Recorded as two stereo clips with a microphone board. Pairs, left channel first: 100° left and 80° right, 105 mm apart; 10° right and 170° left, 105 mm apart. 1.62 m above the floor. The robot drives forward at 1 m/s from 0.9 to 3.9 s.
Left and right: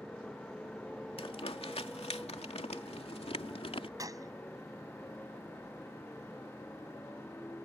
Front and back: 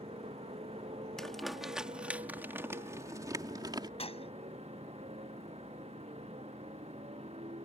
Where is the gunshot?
25° right.